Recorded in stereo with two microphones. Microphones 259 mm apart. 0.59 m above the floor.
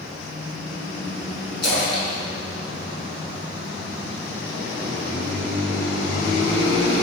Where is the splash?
80° left, 3 m.